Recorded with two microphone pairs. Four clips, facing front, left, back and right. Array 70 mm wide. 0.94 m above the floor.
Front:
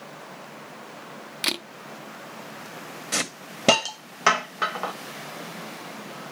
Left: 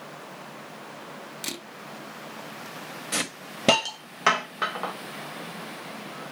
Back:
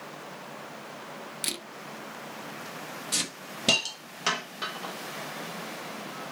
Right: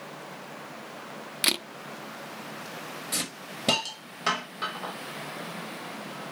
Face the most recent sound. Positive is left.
turn(degrees=30)